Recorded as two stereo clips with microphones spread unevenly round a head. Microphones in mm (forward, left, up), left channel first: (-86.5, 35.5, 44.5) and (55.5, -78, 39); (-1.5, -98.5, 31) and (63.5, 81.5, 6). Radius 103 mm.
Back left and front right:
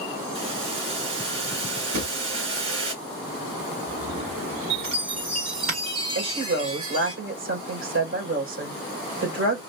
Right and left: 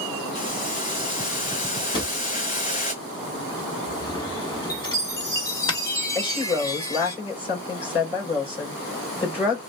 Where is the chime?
35° right, 1.6 m.